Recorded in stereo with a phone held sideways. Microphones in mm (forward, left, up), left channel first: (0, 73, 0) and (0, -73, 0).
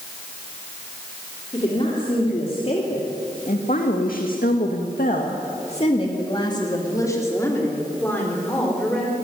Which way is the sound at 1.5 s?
35° left (ahead or behind).